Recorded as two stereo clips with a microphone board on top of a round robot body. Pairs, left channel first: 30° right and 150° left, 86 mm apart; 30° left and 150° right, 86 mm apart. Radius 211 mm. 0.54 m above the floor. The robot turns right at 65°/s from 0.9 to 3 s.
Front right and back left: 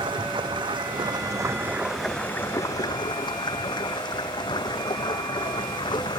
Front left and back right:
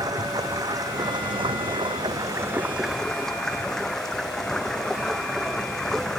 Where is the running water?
170° left; by 6.2 s 55° right.